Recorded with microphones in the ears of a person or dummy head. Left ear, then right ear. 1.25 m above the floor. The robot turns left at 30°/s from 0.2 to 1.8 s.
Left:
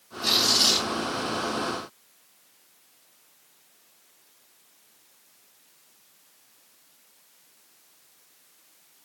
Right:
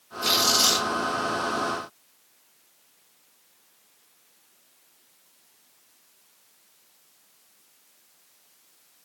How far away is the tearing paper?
About 1.7 m.